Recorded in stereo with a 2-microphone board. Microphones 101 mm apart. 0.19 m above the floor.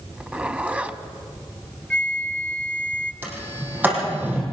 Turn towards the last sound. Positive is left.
turn(degrees=-20)  # may be behind; listen again after turning